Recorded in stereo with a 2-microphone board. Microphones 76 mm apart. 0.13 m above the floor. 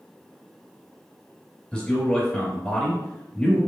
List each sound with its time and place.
1.7 s a man speaking: 10° left (ahead or behind), 1.9 m